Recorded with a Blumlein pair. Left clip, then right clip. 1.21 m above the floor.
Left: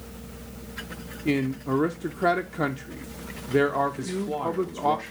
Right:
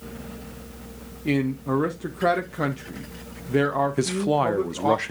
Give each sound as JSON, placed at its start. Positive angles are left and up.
{"t": 1.2, "sound": "a man speaking", "azimuth_deg": 0, "distance_m": 0.5}
{"t": 4.0, "sound": "a man speaking", "azimuth_deg": -50, "distance_m": 0.7}